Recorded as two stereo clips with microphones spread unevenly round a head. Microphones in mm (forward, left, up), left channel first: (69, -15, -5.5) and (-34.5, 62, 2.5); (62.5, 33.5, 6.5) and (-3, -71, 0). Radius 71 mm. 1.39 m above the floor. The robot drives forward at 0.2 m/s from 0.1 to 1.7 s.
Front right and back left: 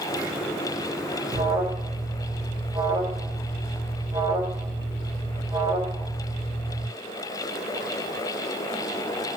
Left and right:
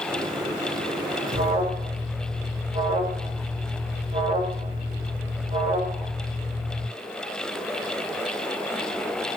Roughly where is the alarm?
Behind right.